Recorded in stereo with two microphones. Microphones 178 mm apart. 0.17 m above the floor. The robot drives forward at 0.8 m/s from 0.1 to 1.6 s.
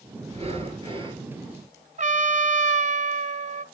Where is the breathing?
35° right (ahead or behind), 1.9 m; by 1.2 s 25° right (ahead or behind), 2.5 m.